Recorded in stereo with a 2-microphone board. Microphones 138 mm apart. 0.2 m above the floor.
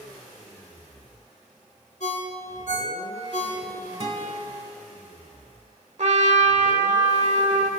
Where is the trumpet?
55° right (ahead or behind), 0.8 m.